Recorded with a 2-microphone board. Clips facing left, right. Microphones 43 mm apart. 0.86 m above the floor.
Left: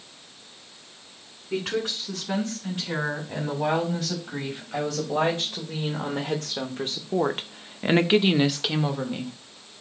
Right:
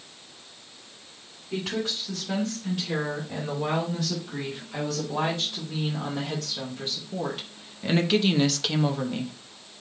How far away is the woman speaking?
About 3.5 m.